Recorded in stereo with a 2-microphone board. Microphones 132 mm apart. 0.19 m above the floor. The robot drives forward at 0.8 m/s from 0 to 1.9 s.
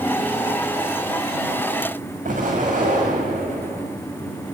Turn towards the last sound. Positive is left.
turn(degrees=-80)